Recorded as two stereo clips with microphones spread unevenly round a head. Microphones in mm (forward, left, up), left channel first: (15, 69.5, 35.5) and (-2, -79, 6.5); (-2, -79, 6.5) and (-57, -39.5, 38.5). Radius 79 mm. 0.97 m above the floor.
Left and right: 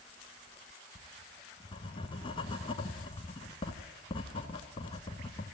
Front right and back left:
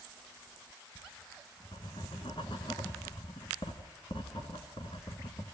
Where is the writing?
35° left, 1.9 m.